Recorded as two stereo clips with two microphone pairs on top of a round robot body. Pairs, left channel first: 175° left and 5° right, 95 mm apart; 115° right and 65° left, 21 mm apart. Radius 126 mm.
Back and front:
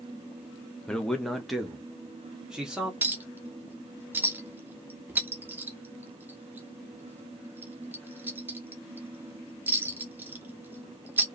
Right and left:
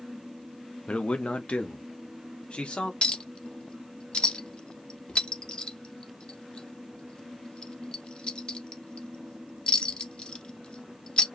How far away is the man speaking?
About 0.9 m.